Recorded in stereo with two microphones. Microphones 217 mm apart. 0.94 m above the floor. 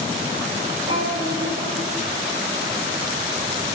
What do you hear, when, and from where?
0.9 s a child speaking: 30° right (ahead or behind), 2 m